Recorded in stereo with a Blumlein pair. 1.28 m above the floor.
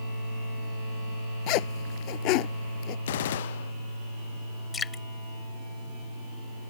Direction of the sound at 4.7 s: 15° left.